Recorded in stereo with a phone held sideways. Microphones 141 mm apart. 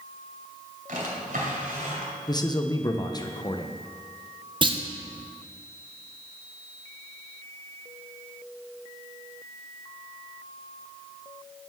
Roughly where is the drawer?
Right.